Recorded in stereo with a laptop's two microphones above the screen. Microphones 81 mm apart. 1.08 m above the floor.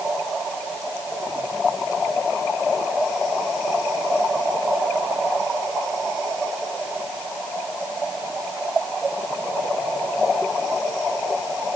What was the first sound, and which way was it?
Only background noise.